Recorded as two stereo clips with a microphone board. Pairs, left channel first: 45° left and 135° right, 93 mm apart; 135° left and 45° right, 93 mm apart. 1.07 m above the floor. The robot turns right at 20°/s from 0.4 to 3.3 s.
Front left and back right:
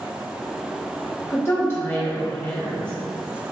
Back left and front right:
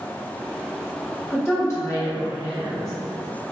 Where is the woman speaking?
85° left, 0.9 m; by 2.9 s 115° left, 0.9 m.